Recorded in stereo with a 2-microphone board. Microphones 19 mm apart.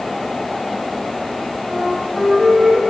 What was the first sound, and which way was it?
A flute, 60° right (ahead or behind).